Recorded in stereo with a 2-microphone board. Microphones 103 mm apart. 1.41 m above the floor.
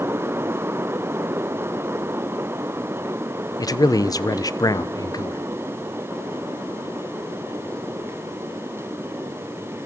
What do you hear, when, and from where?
3.6 s a man speaking: 40° left (ahead or behind), 1.1 m